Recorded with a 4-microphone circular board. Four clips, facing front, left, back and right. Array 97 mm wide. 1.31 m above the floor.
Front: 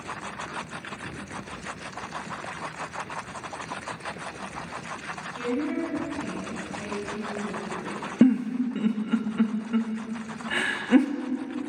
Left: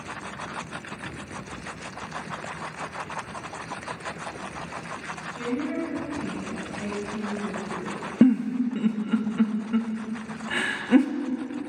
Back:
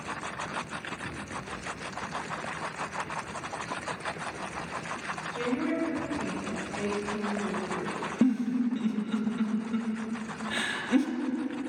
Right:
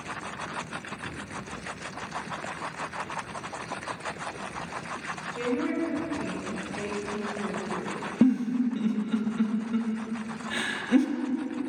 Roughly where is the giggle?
Ahead left.